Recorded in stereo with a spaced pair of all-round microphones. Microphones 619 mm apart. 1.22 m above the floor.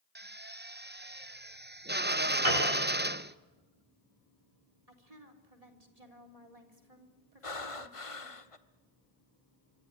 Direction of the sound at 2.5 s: 55° left (ahead or behind).